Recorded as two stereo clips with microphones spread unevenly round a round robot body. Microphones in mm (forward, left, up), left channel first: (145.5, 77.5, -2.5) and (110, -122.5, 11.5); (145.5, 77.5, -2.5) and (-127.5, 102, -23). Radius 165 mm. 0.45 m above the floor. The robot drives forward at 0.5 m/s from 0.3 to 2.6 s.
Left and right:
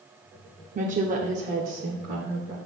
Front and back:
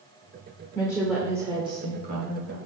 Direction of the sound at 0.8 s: 80° right.